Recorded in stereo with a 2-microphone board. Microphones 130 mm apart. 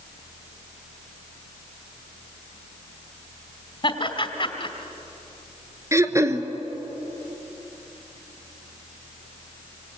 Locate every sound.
3.8 s laughter: 40° left (ahead or behind), 2 m
5.9 s throat clearing: 25° right (ahead or behind), 1.3 m